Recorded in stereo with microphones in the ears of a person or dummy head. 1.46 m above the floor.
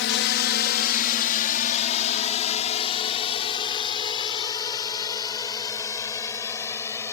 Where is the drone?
60° left (ahead or behind); by 7.1 s 15° left (ahead or behind).